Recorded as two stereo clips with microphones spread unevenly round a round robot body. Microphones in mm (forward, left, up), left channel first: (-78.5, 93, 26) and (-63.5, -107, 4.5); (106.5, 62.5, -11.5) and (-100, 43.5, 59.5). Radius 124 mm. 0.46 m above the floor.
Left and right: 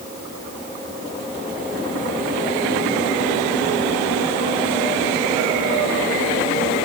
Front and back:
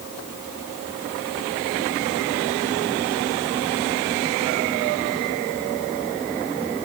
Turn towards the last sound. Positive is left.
No sound to turn to.